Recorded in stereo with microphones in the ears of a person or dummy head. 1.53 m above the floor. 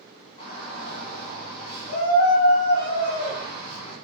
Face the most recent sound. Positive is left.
turn(degrees=35)  # may be behind; listen again after turning